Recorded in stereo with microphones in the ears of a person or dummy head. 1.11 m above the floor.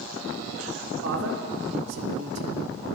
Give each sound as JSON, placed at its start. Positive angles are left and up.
{"t": 1.0, "sound": "a man speaking", "side_deg": -80, "distance_m": 4.0}